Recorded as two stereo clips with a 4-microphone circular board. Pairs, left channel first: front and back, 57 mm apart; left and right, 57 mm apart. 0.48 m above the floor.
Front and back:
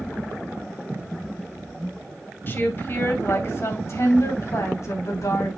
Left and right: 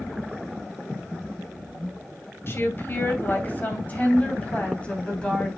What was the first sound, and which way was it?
A woman speaking, 50° left.